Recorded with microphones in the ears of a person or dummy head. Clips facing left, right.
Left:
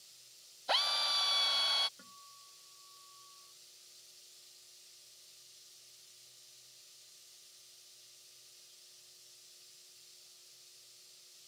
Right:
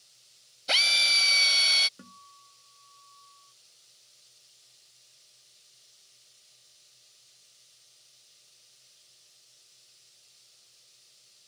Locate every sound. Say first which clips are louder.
0.7 s a drill: right 1 dB; 40° right (ahead or behind)
2.0 s a guitar: right 9 dB; 65° right (ahead or behind)